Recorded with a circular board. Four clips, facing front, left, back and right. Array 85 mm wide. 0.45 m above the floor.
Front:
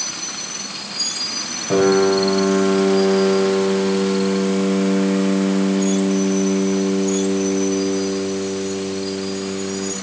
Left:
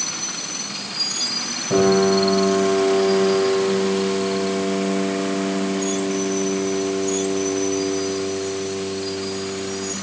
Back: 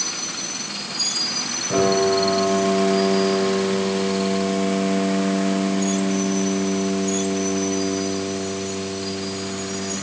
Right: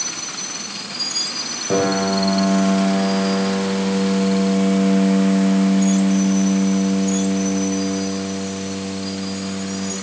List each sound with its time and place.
1.7 s a piano: 60° right, 6.5 m